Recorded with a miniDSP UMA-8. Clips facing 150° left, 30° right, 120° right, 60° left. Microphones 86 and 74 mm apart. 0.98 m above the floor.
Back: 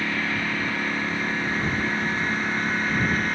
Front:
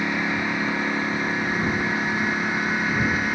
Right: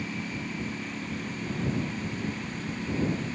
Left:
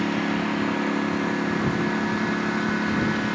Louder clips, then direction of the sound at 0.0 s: Front 2 dB, left 11 dB; 45° left.